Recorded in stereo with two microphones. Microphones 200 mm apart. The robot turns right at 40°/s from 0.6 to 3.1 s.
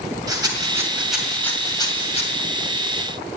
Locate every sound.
0.3 s a rattle: 20° right (ahead or behind), 2.5 m; by 2.3 s 35° left (ahead or behind), 2.5 m